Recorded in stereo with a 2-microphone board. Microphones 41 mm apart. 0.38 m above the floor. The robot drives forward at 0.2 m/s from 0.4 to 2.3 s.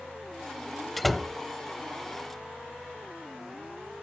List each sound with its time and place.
1.0 s a door slam: 5° left (ahead or behind), 0.8 m